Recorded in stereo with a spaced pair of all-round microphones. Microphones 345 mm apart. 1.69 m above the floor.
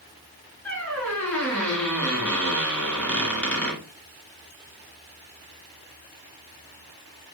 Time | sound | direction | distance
0.7 | a squeak | 5° left (ahead or behind) | 2.5 m